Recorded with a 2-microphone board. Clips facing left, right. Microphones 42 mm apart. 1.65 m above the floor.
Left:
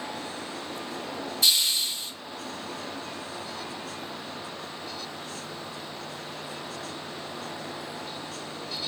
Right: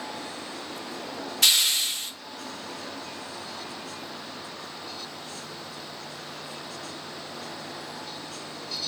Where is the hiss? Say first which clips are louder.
Right 2 dB; 65° right (ahead or behind), 0.6 m.